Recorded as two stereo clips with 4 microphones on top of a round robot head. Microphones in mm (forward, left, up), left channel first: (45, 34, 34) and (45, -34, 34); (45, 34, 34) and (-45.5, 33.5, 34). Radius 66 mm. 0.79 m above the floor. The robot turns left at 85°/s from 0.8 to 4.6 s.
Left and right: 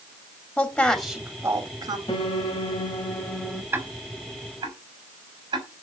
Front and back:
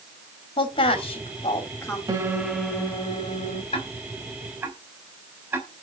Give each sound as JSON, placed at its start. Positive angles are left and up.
{"t": 0.6, "sound": "a woman speaking", "azimuth_deg": 10, "distance_m": 2.5}
{"t": 2.1, "sound": "a piano", "azimuth_deg": 135, "distance_m": 1.6}
{"t": 3.7, "sound": "ticking", "azimuth_deg": -30, "distance_m": 4.0}